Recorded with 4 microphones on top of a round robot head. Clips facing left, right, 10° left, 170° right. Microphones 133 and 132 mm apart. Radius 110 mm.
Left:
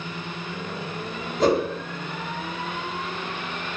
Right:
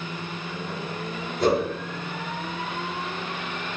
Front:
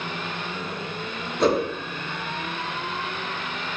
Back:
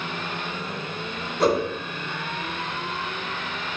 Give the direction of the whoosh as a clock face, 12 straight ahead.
9 o'clock.